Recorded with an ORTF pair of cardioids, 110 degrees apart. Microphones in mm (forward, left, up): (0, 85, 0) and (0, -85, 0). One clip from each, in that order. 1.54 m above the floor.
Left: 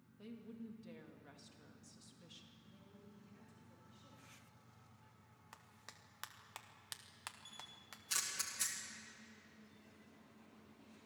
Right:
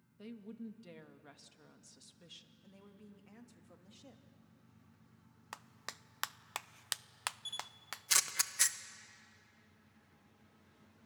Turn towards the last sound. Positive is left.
turn(degrees=-55)